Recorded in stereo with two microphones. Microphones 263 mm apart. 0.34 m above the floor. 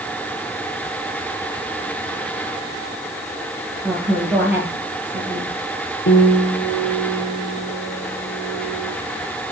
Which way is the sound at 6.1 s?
60° left (ahead or behind).